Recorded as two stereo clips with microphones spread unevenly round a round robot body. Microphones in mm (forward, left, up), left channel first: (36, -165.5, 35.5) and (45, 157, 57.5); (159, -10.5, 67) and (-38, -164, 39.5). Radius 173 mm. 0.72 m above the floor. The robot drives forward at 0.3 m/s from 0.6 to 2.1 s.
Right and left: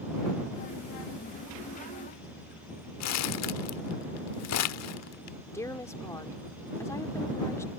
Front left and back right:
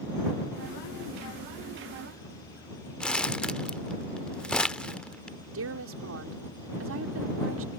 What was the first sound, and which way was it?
Crumpling, 50° right.